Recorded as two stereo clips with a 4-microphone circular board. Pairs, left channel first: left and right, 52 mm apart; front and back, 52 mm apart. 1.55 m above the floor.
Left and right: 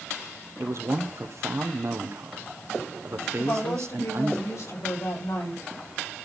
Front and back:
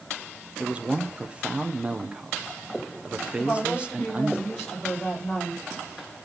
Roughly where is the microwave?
I don't hear a microwave.